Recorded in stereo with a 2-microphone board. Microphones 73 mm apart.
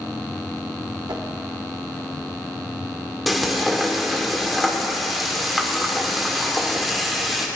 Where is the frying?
Centre (ahead or behind), 1.5 m.